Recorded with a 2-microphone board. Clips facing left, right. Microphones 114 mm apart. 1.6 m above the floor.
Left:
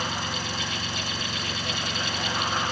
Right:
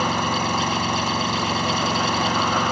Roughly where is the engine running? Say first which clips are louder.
Right 10 dB; right.